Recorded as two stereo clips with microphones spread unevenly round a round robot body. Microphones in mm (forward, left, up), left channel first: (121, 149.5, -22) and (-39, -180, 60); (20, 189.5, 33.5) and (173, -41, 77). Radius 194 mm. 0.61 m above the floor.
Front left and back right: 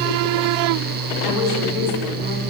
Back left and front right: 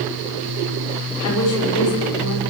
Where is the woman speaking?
160° left, 6 m.